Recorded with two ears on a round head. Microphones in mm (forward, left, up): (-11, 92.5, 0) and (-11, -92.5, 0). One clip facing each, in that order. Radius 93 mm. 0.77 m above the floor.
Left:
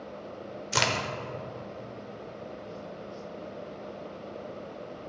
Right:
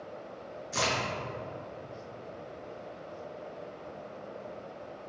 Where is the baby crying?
No baby crying in this recording.